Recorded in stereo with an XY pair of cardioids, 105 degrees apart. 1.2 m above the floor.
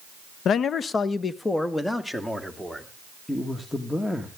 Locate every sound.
0.5 s a man speaking: 65° left, 0.8 m; by 2.9 s 10° left, 3 m
3.3 s a man speaking: 10° left, 1.9 m